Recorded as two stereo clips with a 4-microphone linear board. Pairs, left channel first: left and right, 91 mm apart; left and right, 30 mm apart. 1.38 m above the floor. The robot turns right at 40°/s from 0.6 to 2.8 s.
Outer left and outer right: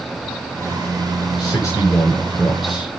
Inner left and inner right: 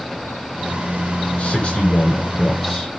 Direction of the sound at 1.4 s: 45° left (ahead or behind).